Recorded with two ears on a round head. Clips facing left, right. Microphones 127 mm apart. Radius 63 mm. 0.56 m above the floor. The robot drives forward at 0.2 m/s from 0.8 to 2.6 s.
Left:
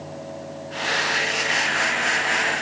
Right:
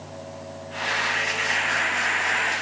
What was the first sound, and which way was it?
Only background noise.